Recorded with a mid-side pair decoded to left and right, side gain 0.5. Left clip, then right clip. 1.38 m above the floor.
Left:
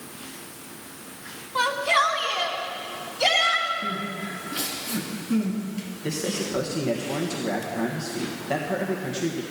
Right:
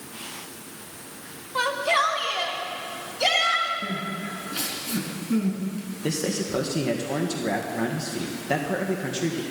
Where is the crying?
20° right, 5 m.